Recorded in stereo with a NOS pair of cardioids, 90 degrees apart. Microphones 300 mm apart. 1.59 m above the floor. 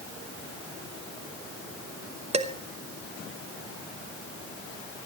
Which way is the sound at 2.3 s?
20° right.